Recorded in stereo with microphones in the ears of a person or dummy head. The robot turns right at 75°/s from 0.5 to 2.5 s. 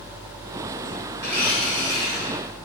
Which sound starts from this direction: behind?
A blender, at 1.2 s.